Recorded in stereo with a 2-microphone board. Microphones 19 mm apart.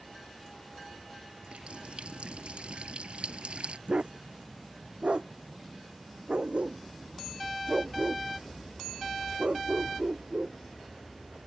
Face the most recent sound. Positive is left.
turn(degrees=-65)  # may be behind; listen again after turning